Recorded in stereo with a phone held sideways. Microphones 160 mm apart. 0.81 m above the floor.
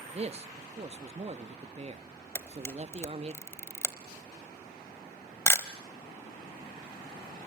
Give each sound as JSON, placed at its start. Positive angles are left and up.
{"t": 0.1, "sound": "a man speaking", "side_deg": -40, "distance_m": 0.8}
{"t": 2.4, "sound": "a camera shutter", "side_deg": 15, "distance_m": 0.9}